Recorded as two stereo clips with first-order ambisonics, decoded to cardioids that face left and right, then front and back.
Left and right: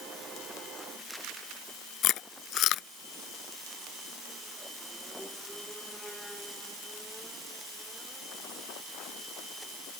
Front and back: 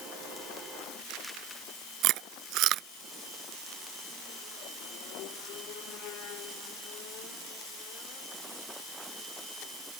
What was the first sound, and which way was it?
Chewing, 135° left.